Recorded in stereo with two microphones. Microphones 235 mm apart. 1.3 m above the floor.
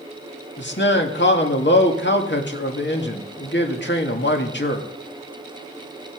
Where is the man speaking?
50° left (ahead or behind), 2 m.